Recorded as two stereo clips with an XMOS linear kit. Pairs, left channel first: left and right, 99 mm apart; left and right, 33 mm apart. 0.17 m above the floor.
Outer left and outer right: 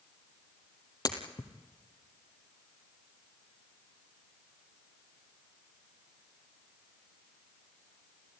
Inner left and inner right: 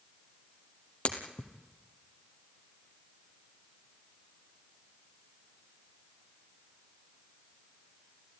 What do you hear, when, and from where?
1.1 s breaking glass: 45° left (ahead or behind), 2.5 m